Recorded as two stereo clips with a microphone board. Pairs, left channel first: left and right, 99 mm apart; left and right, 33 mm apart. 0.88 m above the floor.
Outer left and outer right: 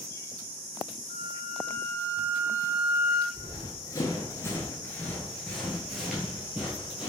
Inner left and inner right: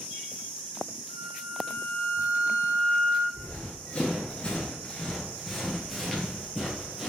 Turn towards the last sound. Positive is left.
turn(degrees=-10)  # may be behind; listen again after turning